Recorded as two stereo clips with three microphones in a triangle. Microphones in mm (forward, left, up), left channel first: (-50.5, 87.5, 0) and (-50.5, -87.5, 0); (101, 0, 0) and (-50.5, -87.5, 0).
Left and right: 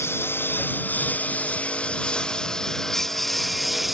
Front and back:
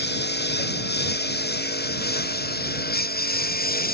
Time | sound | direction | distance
0.0 | a lawn mower | 15° left | ?